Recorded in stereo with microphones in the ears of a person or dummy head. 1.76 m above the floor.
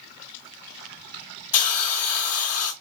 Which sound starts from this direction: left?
A hiss, at 1.5 s.